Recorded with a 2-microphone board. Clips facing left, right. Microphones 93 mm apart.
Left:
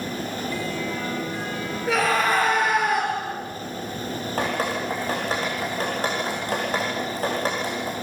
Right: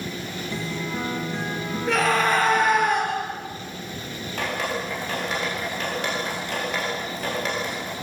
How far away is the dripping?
About 9.5 m.